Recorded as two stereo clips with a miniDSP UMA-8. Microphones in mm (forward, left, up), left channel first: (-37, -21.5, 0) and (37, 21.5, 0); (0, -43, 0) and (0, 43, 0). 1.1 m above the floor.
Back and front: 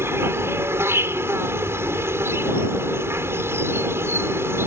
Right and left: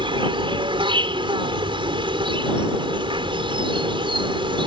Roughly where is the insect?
Left.